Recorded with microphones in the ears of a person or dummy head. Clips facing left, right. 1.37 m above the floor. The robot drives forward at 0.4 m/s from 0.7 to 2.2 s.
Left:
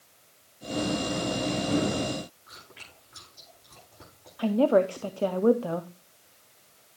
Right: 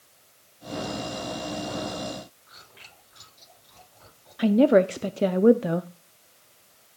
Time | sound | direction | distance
2.5 | chewing | 65° left (ahead or behind) | 9.5 m
4.4 | a woman speaking | 20° right (ahead or behind) | 0.5 m